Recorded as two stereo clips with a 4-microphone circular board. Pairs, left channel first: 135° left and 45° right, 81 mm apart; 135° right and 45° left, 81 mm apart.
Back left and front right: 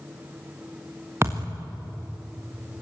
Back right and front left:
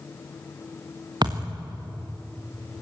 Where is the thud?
15° left, 4 m.